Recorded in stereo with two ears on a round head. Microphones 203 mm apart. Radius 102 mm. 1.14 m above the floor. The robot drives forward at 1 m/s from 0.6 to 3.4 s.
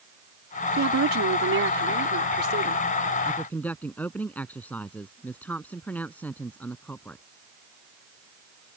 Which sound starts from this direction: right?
A woman speaking, at 0.8 s.